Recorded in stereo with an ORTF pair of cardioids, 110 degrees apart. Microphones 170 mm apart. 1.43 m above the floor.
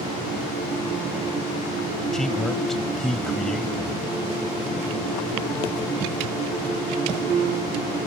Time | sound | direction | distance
2.1 | a man speaking | straight ahead | ?